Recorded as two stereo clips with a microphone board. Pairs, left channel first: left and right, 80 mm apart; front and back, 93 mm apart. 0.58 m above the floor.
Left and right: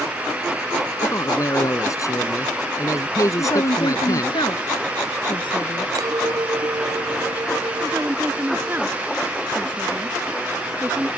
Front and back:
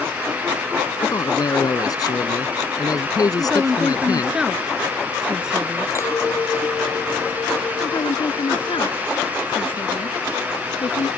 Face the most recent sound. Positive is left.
turn(degrees=-25)